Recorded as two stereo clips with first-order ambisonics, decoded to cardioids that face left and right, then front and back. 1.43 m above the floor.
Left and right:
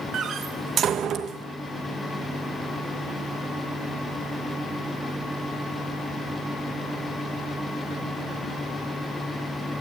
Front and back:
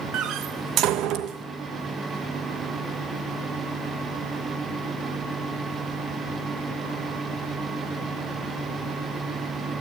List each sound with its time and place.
0.1 s a door slam: 145° right, 1.0 m